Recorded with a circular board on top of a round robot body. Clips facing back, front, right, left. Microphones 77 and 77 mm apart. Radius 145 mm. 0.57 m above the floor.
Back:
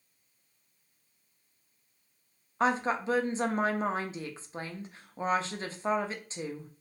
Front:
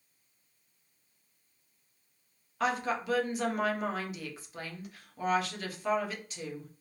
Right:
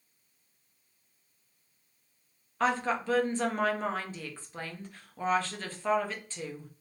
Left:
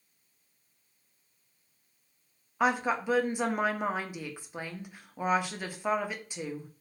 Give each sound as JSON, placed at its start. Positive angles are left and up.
{"t": 2.6, "sound": "a woman speaking", "azimuth_deg": 155, "distance_m": 0.8}